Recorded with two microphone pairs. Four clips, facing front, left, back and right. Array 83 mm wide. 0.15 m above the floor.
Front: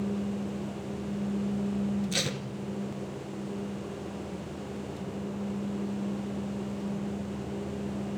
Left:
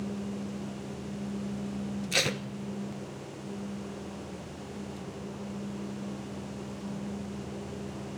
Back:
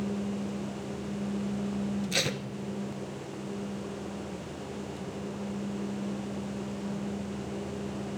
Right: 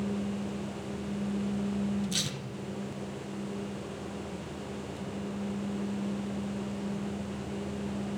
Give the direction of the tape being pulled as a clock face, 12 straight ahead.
8 o'clock.